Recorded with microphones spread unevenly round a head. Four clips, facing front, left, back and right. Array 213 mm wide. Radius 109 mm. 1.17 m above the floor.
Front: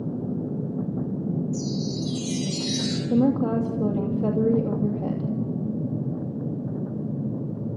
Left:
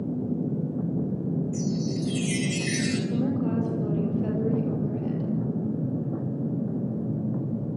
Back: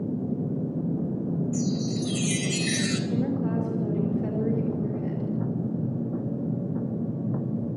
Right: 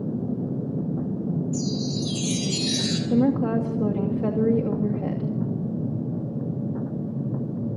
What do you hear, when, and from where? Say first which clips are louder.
1.5 s a chime: right 1 dB, back 1 dB; 170° right, 3.5 m
3.1 s a woman speaking: right 9 dB, front 10 dB; 40° right, 2.5 m